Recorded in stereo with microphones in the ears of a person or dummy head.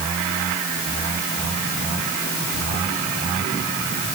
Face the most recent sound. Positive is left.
No sound to turn to.